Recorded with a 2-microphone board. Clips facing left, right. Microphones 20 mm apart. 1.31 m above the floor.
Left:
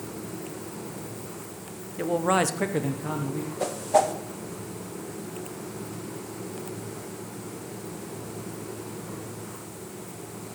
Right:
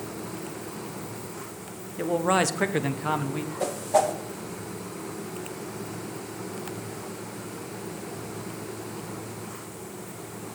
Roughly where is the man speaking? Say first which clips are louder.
Even; centre.